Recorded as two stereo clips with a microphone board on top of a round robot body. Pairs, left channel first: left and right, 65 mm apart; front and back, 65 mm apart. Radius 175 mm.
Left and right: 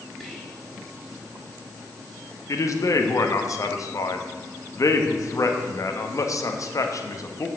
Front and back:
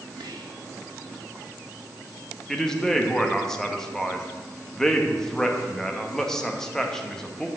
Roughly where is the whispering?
Behind.